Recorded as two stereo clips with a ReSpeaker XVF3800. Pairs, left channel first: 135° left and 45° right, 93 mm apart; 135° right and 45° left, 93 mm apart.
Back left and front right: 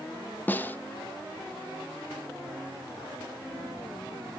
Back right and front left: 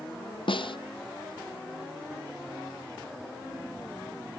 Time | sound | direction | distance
0.5 | a snare drum | 155° right | 0.7 m